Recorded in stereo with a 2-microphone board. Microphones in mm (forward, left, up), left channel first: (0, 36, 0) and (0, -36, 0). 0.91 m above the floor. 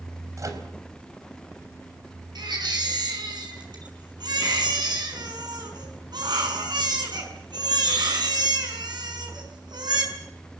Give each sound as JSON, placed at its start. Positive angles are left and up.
{"t": 0.4, "sound": "a microwave", "side_deg": -50, "distance_m": 4.0}
{"t": 2.4, "sound": "a baby crying", "side_deg": -80, "distance_m": 6.5}